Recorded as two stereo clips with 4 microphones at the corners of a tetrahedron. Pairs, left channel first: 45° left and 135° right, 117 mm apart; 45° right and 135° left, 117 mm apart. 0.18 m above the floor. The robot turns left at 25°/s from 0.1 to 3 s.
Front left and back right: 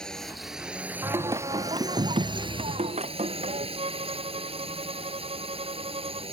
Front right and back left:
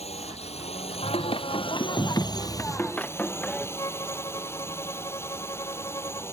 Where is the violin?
105° right.